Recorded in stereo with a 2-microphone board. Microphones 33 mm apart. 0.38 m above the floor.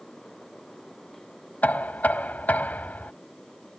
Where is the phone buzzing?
No phone buzzing in this recording.